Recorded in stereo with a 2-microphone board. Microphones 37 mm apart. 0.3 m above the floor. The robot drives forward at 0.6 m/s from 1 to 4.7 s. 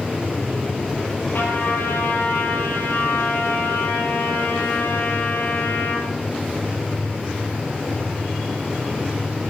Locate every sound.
1.3 s a trumpet: 75° left (ahead or behind), 10 m; by 6.1 s 80° left, 9.5 m